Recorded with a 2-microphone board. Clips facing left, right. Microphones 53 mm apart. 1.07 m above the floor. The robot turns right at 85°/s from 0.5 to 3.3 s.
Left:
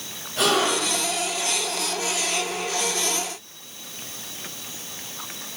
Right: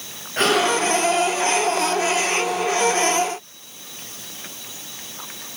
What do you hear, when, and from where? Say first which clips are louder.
0.4 s a gasp: right 3 dB; 135° right, 9 m; by 1.0 s 90° right, 9 m